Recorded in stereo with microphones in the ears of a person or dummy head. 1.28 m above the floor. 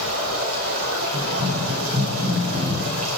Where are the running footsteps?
25° right (ahead or behind), 4 m; by 3.1 s 35° right (ahead or behind), 2.5 m.